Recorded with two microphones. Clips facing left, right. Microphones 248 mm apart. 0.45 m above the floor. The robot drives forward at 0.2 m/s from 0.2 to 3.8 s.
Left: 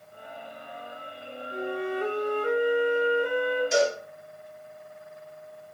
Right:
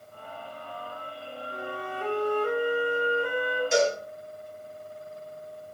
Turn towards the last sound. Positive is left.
turn(degrees=0)  # may be behind; listen again after turning